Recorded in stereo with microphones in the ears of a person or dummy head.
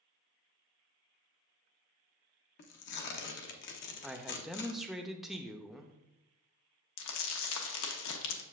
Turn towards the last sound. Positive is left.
turn(degrees=75)  # may be behind; listen again after turning